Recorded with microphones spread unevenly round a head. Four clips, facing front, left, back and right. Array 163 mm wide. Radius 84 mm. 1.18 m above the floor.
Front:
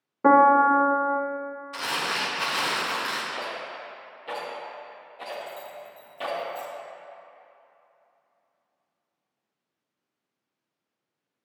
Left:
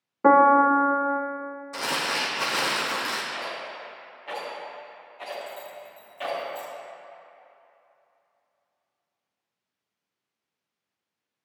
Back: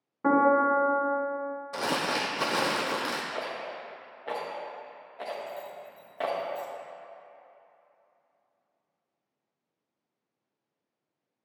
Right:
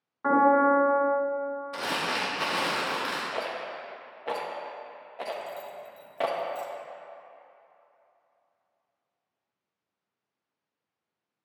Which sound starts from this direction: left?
A piano, at 0.2 s.